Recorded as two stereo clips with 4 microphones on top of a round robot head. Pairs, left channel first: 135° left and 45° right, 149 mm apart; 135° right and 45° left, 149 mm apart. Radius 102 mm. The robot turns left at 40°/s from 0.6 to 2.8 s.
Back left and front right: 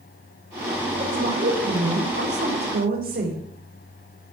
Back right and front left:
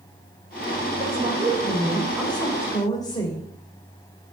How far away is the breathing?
I don't hear breathing.